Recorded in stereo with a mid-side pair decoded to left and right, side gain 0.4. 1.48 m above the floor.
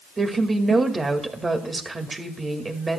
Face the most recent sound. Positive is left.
turn(degrees=-30)